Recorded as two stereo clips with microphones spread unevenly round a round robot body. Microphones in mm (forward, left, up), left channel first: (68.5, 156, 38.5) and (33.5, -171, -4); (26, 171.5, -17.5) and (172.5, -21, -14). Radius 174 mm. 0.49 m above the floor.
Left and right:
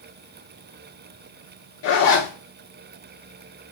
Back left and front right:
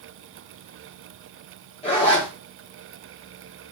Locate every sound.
1.8 s a zipper: 90° left, 1.4 m